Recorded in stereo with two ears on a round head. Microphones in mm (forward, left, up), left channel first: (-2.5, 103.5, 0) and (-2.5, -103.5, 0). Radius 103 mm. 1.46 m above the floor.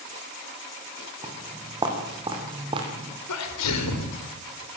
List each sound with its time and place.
1.2 s footsteps: 20° right (ahead or behind), 5.5 m; by 3.2 s 25° right (ahead or behind), 4 m
3.3 s a sneeze: 80° left, 4.5 m